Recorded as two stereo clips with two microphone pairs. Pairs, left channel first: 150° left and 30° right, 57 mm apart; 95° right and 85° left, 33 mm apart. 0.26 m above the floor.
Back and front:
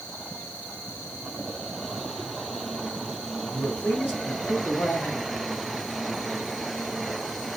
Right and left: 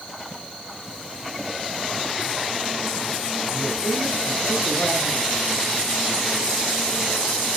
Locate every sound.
3.5 s a man speaking: 160° right, 2 m; by 5.3 s 155° left, 2 m